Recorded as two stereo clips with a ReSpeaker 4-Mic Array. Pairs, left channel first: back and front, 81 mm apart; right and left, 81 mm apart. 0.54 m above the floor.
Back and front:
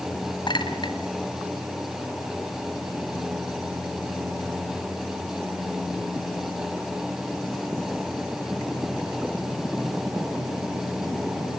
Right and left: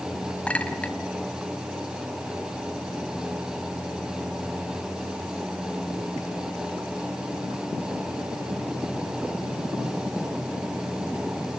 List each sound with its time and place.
0.5 s a clink: 165° right, 1.8 m